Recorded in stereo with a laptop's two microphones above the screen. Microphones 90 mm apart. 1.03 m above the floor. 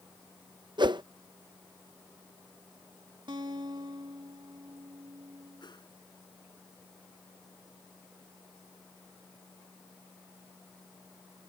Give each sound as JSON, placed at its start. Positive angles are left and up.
{"t": 0.8, "sound": "a whoosh", "side_deg": -55}
{"t": 3.3, "sound": "a guitar", "side_deg": -60}
{"t": 5.6, "sound": "a whoosh", "side_deg": 55}